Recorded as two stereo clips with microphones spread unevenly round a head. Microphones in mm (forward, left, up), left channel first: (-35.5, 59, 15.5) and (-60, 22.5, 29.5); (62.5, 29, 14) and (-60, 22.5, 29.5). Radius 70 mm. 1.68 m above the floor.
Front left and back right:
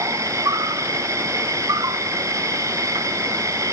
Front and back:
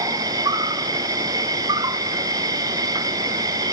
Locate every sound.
0.0 s an insect: 110° right, 1.0 m